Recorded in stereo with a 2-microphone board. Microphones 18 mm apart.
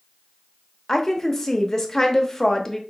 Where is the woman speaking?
25° left (ahead or behind), 0.7 m.